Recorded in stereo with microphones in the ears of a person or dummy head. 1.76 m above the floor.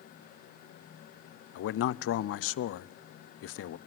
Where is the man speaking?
80° left, 0.7 m.